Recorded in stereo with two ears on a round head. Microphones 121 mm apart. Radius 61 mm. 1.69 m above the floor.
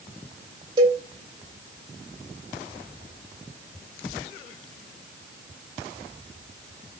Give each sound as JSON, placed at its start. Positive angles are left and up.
{"t": 0.8, "sound": "a cowbell", "side_deg": -35, "distance_m": 1.7}